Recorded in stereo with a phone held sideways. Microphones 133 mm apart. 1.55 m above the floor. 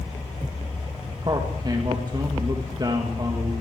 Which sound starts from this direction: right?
A man speaking, at 1.2 s.